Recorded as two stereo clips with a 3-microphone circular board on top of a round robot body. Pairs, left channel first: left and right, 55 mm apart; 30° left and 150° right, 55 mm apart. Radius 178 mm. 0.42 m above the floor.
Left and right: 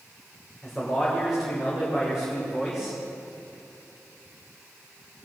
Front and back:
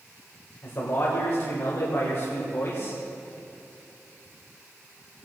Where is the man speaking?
5° right, 2.5 m.